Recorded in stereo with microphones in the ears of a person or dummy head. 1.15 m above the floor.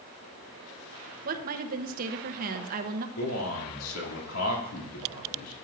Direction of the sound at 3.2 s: 80° left.